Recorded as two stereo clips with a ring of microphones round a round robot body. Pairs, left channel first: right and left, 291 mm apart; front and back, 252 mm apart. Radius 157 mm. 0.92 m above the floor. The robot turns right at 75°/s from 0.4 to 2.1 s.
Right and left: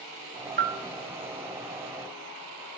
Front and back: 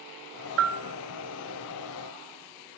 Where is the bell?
150° left, 0.8 m; by 0.8 s 165° left, 0.8 m.